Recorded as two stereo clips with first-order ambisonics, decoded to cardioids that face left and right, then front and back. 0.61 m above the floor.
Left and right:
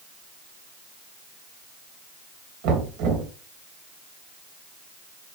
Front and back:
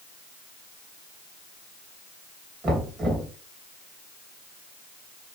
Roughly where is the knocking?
Right.